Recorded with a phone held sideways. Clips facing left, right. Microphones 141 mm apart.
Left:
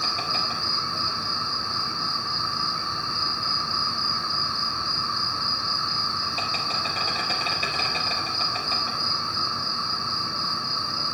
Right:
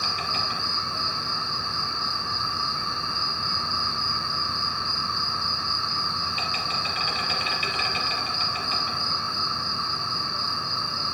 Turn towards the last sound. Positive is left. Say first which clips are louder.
# left 1 dB
turn(degrees=40)  # may be behind; listen again after turning